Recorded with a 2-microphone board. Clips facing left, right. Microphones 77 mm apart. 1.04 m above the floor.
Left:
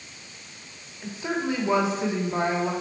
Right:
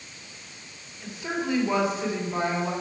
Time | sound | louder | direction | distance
1.0 | a woman speaking | left 2 dB | 25° left (ahead or behind) | 2.5 m